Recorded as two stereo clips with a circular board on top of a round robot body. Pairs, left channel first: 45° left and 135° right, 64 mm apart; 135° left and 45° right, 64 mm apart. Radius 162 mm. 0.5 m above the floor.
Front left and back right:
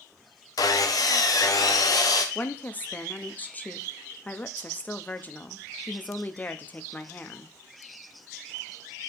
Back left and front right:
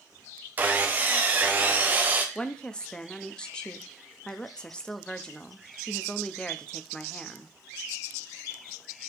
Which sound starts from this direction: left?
A woman speaking, at 2.4 s.